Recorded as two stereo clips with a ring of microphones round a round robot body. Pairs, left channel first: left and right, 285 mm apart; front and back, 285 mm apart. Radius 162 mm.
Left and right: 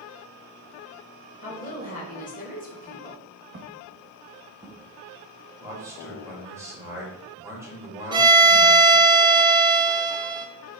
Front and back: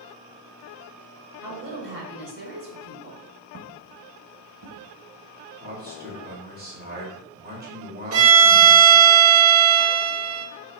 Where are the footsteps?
135° right, 1.2 m; by 4.9 s 165° right, 1.6 m.